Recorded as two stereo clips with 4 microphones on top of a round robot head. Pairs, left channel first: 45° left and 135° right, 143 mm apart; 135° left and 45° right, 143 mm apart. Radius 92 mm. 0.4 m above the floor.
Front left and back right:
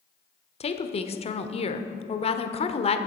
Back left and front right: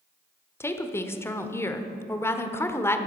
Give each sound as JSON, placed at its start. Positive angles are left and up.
{"t": 0.6, "sound": "a woman speaking", "azimuth_deg": 65, "distance_m": 1.1}